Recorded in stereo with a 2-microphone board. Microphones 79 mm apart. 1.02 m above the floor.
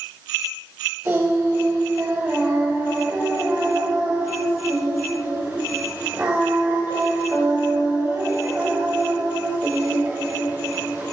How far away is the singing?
About 5.5 m.